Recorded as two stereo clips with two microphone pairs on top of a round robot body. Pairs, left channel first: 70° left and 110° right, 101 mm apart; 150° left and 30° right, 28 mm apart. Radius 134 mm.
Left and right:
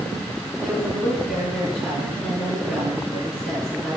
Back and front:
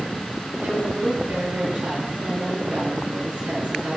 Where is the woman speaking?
30° right, 4.5 m.